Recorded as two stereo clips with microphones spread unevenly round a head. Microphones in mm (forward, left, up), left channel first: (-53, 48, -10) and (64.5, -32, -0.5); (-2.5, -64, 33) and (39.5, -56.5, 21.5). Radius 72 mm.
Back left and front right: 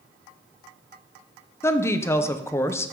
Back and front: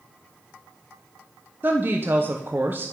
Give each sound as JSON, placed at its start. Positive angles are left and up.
{"t": 1.6, "sound": "a woman speaking", "azimuth_deg": 70, "distance_m": 0.6}